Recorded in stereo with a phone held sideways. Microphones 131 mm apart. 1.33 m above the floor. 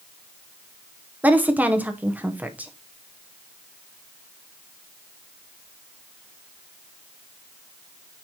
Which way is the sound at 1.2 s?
10° right (ahead or behind).